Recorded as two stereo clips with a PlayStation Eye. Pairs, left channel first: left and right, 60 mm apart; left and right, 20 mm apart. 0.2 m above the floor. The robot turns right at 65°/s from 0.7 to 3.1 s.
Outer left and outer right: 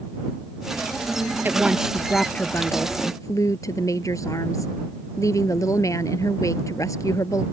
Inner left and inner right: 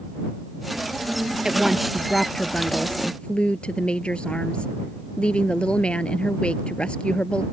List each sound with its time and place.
1.4 s a woman speaking: 35° right; by 7.4 s 70° left